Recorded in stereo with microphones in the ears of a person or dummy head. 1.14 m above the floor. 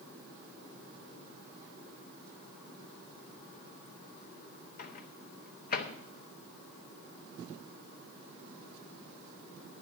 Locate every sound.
4.8 s a microwave: 50° left (ahead or behind), 0.9 m